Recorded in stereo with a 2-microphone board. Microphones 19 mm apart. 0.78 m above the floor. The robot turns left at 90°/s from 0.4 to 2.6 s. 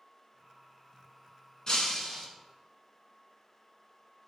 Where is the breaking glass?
65° left, 1.0 m; by 2.3 s 10° left, 1.0 m.